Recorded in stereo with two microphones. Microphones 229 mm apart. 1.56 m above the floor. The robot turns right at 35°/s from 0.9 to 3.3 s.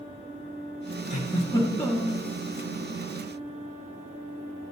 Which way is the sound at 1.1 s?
150° left.